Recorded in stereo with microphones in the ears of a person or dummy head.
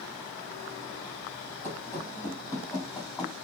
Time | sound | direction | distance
1.6 | running footsteps | 15° right (ahead or behind) | 3.5 m